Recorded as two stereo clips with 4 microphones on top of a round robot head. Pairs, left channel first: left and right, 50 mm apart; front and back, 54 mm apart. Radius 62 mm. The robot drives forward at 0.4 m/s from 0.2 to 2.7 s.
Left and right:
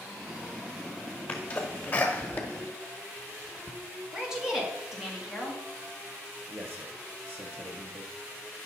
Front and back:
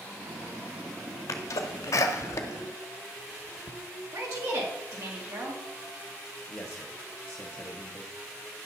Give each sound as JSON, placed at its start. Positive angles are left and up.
{"t": 1.3, "sound": "a sneeze", "azimuth_deg": 20, "distance_m": 1.4}
{"t": 4.1, "sound": "a woman speaking", "azimuth_deg": -170, "distance_m": 1.7}
{"t": 6.5, "sound": "a man speaking", "azimuth_deg": -60, "distance_m": 1.0}